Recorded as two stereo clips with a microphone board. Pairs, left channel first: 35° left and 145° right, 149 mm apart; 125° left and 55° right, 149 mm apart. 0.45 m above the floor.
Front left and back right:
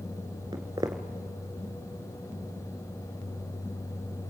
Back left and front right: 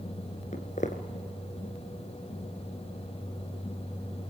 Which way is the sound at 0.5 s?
150° left.